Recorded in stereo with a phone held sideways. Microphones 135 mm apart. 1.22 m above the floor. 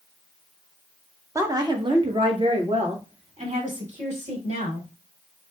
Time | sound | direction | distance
1.4 | a woman speaking | 20° right (ahead or behind) | 1.1 m